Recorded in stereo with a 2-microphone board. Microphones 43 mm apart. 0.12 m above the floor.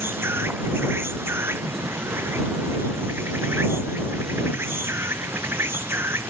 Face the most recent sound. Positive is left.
turn(degrees=-70)  # may be behind; listen again after turning